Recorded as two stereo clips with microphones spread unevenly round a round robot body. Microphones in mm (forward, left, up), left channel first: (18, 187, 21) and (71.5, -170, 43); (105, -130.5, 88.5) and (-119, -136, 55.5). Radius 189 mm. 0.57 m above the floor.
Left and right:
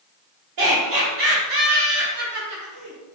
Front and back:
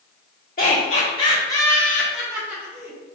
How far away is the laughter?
About 1.5 m.